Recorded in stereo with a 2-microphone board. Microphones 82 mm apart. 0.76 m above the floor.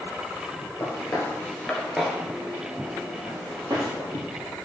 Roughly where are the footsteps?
Left.